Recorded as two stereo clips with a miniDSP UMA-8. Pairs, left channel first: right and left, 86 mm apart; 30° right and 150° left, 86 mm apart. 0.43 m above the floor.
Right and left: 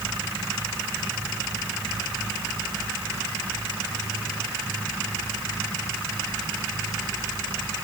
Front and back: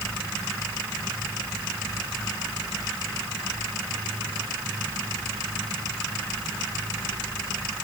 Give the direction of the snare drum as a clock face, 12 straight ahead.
I don't hear a snare drum.